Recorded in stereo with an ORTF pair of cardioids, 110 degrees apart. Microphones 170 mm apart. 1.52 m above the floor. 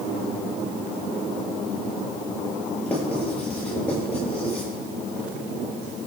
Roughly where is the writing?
Ahead.